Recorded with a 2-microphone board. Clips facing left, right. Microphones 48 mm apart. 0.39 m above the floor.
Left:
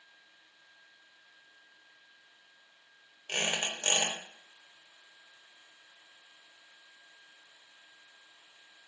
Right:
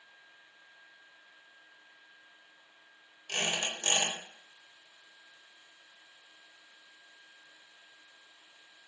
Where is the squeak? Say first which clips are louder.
Left 1 dB; 30° left (ahead or behind), 0.9 m.